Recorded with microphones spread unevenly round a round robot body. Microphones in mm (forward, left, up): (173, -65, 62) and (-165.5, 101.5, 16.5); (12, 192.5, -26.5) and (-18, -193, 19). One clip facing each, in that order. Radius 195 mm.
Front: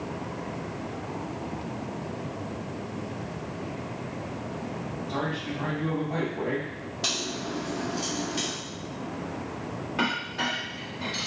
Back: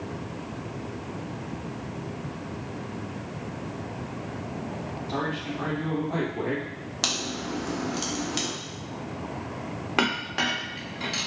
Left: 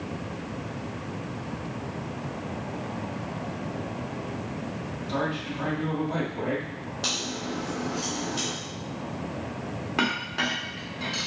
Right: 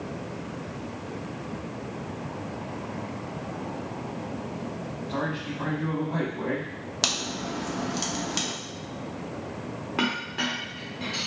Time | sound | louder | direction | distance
5.1 | a man speaking | back 1 dB, left 2 dB | 95° left | 2 m
7.0 | a crack | back 1 dB, even | 145° right | 0.8 m
10.0 | a clink | back 4 dB, right 1 dB | 170° left | 1.0 m